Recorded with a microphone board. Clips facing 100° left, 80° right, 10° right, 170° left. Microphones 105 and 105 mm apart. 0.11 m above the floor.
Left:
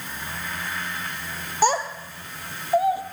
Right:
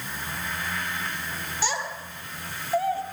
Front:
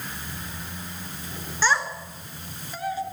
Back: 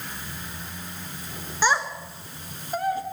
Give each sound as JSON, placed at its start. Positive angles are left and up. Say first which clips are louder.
{"t": 1.6, "sound": "a child speaking", "louder": "left 10 dB, back 1 dB", "azimuth_deg": 105, "distance_m": 1.5}